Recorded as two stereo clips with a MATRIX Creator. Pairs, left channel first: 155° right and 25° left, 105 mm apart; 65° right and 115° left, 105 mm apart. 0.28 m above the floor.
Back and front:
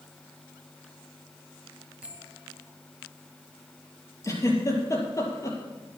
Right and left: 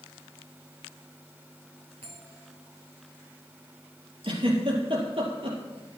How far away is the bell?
About 6 m.